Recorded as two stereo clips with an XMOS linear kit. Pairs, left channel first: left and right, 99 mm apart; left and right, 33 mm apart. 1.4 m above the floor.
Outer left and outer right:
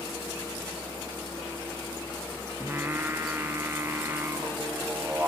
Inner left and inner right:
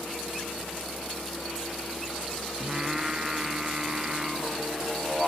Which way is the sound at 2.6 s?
20° right (ahead or behind).